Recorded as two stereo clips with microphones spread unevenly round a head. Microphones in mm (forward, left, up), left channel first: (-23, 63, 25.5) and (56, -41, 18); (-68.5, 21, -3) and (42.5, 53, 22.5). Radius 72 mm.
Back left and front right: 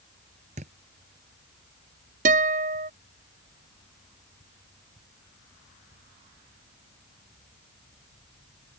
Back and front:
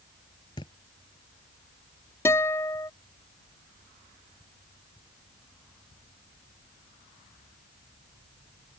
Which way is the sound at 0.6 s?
100° right.